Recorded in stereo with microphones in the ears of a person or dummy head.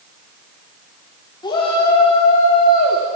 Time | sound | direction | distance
1.4 | a shout | 25° left (ahead or behind) | 3 m